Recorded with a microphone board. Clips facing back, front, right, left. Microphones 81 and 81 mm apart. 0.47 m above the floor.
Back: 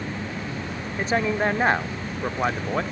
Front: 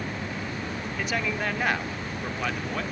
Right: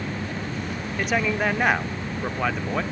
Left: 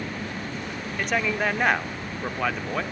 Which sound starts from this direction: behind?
A man speaking, at 1.0 s.